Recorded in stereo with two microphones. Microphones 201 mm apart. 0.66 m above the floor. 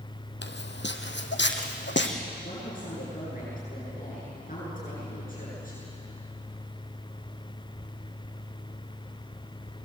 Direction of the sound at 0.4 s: 70° left (ahead or behind).